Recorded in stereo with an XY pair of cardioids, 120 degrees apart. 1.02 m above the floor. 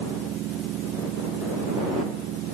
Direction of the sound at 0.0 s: 70° right.